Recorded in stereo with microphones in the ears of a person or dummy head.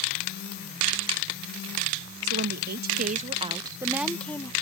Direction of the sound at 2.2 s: 65° right (ahead or behind).